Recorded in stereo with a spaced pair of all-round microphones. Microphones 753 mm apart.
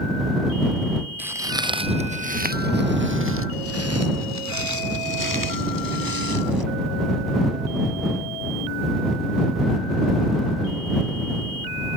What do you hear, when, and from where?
1.2 s footsteps: 5° right (ahead or behind); by 6.6 s 30° right (ahead or behind)